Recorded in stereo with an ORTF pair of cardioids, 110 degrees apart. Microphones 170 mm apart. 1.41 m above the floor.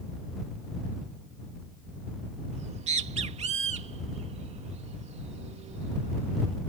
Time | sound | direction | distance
2.5 | a bird | 40° right | ?